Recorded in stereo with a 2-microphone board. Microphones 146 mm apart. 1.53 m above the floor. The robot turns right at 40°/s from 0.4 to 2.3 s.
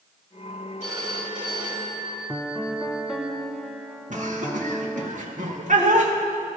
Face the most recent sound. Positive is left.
turn(degrees=-60)  # may be behind; listen again after turning